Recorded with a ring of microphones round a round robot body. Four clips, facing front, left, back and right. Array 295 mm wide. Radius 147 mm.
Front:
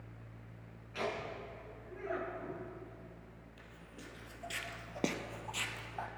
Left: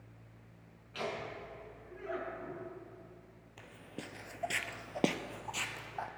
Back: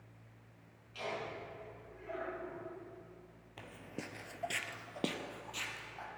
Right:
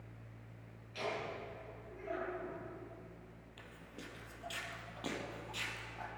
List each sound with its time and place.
0.9 s laughter: 35° left, 7 m
3.6 s footsteps: 165° left, 1.1 m; by 6.1 s 55° left, 1.6 m